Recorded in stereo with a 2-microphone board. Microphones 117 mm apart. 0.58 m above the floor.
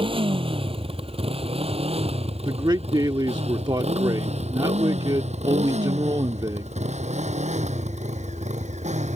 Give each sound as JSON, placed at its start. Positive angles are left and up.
{"t": 0.0, "sound": "a motorcycle", "side_deg": -50}
{"t": 2.4, "sound": "a man speaking", "side_deg": -40}